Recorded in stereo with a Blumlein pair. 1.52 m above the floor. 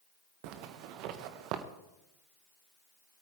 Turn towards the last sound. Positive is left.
turn(degrees=-40)